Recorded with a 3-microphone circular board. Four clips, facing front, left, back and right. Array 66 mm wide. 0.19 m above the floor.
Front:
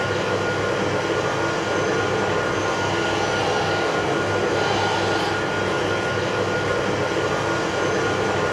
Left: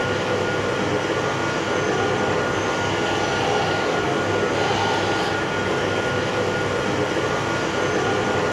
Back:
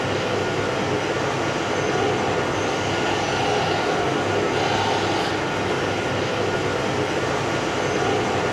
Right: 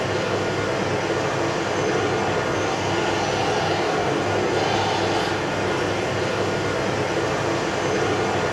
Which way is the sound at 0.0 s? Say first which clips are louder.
Left 1 dB, front 1 dB; 120° left.